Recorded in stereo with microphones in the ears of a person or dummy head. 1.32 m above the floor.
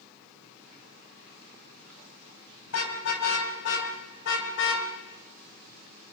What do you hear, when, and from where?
2.7 s a car horn: 85° left, 5 m; by 4.9 s 70° left (ahead or behind), 3.5 m